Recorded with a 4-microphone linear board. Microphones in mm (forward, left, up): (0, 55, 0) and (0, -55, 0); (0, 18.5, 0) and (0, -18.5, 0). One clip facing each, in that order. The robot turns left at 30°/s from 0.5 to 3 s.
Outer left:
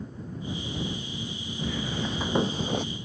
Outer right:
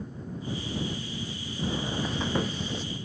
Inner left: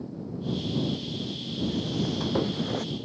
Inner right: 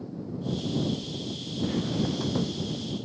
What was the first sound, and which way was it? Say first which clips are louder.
Footsteps: outer right 1 dB, inner right 1 dB; 35° right (ahead or behind).